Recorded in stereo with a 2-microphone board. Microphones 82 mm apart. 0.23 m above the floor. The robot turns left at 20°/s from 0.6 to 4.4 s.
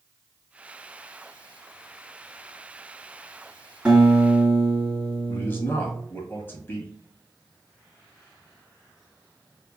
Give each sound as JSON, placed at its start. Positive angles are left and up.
{"t": 3.9, "sound": "a guitar", "side_deg": -10, "distance_m": 1.9}
{"t": 5.3, "sound": "a man speaking", "side_deg": 25, "distance_m": 1.6}